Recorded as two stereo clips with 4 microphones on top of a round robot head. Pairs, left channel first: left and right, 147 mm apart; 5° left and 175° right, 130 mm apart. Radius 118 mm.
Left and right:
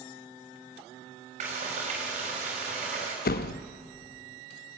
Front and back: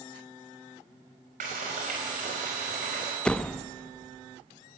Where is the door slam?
90° left, 0.6 m.